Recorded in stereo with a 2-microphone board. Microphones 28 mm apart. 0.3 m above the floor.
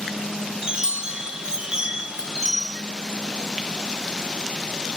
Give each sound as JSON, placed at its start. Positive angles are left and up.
{"t": 0.6, "sound": "a chime", "side_deg": -30, "distance_m": 0.8}